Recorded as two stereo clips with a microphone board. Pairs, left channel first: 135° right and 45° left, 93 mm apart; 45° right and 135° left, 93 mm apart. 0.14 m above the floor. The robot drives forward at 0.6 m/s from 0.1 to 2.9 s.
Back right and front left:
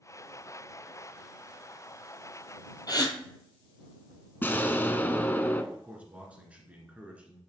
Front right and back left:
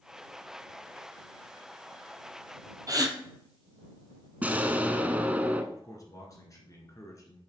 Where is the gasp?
Straight behind, 1.0 m.